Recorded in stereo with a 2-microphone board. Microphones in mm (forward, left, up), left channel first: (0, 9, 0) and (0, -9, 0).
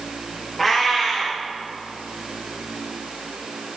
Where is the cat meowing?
10° left (ahead or behind), 4.5 m.